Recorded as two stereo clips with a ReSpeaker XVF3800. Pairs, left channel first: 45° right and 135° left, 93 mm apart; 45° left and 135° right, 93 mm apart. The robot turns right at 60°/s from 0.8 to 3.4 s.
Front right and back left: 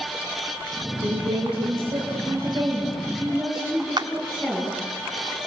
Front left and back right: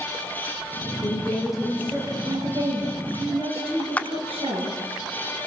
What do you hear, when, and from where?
1.0 s a woman speaking: 105° left, 9.5 m; by 4.8 s 115° right, 9.5 m
4.0 s a clap: 115° left, 0.8 m